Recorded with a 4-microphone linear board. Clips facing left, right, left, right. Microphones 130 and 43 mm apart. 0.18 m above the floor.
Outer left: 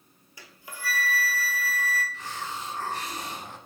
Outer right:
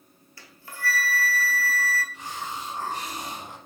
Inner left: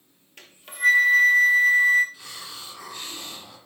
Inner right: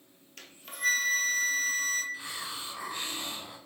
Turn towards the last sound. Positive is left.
turn(degrees=-15)  # may be behind; listen again after turning